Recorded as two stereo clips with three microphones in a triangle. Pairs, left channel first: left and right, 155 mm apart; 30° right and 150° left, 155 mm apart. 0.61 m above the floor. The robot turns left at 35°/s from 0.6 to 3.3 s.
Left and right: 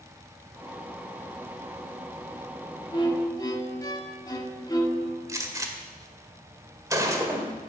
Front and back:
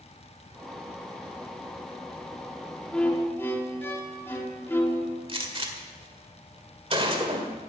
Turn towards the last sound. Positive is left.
turn(degrees=-155)